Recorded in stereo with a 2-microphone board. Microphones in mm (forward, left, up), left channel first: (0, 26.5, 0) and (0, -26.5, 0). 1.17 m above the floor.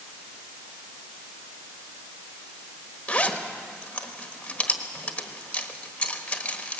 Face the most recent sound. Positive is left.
turn(degrees=20)  # may be behind; listen again after turning